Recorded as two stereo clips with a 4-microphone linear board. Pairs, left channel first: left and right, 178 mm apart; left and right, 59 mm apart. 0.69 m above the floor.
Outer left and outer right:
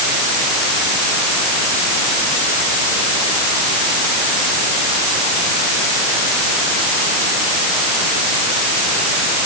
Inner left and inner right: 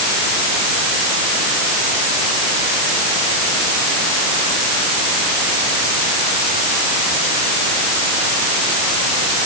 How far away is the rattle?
No rattle in this recording.